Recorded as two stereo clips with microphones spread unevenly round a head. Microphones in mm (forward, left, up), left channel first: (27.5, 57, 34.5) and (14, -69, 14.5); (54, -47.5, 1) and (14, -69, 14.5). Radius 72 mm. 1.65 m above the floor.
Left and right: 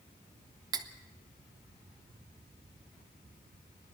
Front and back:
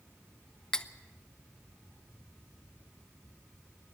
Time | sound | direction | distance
0.7 | cutlery clinking | 65° right | 0.7 m